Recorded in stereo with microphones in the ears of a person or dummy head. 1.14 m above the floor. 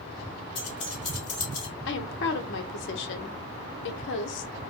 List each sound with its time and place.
0.6 s keys jangling: 35° left (ahead or behind), 2.5 m
1.9 s a woman speaking: 70° left (ahead or behind), 0.9 m